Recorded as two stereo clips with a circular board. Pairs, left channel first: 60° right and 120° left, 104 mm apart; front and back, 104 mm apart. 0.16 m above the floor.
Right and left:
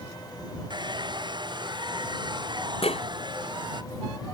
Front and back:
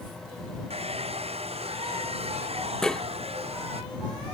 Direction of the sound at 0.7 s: 165° left.